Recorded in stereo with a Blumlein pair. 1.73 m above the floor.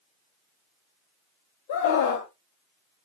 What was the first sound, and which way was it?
A scream, 50° left.